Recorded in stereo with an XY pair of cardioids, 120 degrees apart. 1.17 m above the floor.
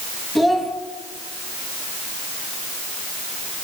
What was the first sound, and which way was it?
A child speaking, 15° left.